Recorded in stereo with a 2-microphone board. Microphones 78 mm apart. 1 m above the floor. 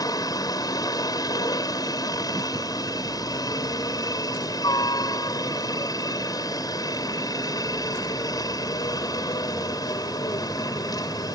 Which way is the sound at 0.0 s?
55° left (ahead or behind).